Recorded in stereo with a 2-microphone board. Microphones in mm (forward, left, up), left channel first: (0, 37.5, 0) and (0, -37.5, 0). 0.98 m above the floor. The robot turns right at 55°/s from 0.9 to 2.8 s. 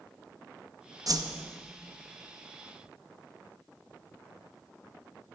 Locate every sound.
1.1 s a whoosh: 50° right (ahead or behind), 0.6 m; by 1.4 s 70° right (ahead or behind), 0.6 m